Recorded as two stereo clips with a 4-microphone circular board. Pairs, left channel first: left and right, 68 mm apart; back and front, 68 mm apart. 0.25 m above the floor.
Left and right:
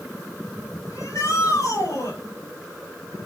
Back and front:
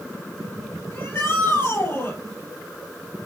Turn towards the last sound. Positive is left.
turn(degrees=125)